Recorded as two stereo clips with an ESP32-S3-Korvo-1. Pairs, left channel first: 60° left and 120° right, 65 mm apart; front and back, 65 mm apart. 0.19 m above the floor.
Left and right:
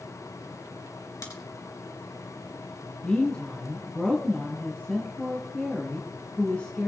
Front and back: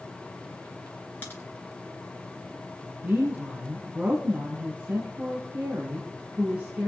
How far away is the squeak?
I don't hear a squeak.